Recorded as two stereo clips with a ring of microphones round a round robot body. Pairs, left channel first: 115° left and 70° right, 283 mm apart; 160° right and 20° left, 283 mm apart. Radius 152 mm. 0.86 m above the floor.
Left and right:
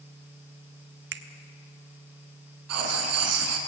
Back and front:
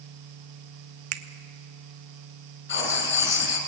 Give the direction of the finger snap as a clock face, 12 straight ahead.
12 o'clock.